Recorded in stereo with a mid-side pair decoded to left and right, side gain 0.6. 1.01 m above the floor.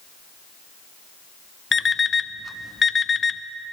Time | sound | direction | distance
1.7 | an alarm clock | 25° left | 0.5 m